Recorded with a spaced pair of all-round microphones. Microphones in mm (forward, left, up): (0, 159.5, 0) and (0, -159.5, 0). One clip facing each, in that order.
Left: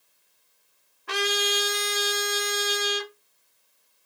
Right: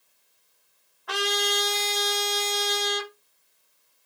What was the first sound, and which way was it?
A trumpet, 30° left (ahead or behind).